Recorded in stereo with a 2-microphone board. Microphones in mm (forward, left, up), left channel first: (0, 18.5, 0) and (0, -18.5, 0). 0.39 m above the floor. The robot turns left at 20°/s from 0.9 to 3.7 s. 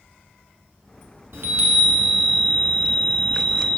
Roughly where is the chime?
Behind right.